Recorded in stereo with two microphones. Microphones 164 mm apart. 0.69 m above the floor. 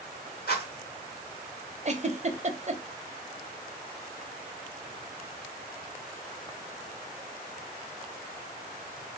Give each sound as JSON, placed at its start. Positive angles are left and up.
{"t": 0.5, "sound": "a rattle", "side_deg": 70, "distance_m": 2.0}
{"t": 1.9, "sound": "a giggle", "side_deg": -45, "distance_m": 0.6}